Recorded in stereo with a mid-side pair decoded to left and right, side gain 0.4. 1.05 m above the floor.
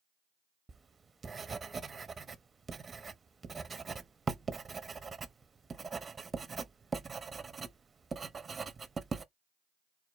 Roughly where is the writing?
Ahead right.